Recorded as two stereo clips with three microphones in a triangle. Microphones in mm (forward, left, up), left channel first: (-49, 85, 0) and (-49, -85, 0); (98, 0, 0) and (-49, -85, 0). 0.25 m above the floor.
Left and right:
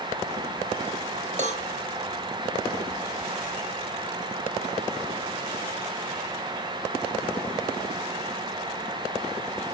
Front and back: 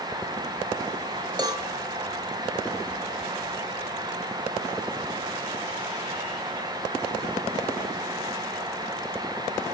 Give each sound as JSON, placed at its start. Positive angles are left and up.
{"t": 1.4, "sound": "a cowbell", "azimuth_deg": -95, "distance_m": 0.8}